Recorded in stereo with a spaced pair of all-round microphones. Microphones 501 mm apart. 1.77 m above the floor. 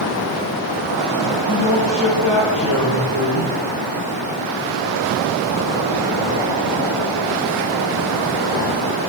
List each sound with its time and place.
1.5 s a man speaking: 45° left (ahead or behind), 2.5 m